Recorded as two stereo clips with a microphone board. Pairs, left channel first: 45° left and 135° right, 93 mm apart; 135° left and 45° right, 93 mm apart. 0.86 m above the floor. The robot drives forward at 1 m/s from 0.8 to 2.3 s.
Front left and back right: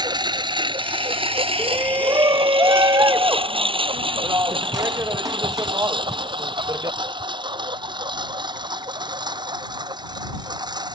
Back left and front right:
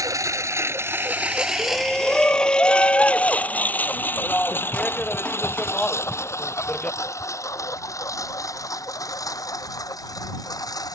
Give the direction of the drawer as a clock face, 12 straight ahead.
No drawer in this recording.